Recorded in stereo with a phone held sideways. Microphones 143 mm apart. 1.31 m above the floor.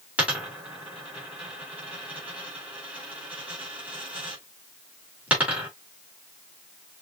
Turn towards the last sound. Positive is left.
turn(degrees=-10)  # may be behind; listen again after turning